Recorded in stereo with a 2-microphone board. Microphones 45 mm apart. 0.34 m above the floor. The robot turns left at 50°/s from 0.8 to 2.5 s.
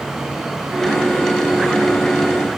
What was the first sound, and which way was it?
Only background noise.